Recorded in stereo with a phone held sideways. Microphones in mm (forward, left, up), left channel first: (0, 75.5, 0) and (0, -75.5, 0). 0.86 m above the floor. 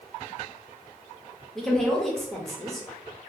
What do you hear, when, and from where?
1.6 s a woman speaking: centre (ahead or behind), 0.9 m